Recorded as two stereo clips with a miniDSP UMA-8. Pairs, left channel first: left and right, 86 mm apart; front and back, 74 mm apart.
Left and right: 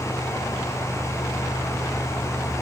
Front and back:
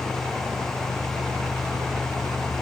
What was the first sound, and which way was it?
Only background noise.